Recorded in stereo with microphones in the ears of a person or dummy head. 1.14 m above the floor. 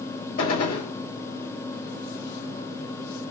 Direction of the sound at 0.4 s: 55° left (ahead or behind).